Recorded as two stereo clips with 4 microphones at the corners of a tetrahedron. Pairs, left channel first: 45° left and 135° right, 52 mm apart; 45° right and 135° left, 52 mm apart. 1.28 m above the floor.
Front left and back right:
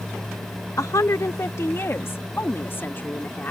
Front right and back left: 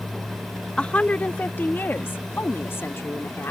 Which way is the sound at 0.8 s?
25° left.